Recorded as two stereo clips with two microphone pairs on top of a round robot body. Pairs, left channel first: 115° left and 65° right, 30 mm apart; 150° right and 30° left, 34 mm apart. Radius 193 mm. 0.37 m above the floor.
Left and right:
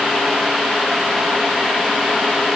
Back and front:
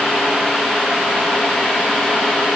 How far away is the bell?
No bell in this recording.